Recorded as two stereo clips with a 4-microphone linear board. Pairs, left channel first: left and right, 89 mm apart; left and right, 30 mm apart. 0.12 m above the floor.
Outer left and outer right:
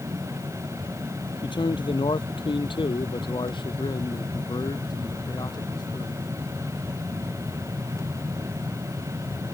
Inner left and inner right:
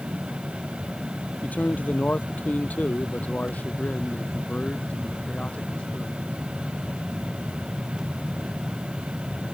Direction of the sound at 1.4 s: 65° left (ahead or behind).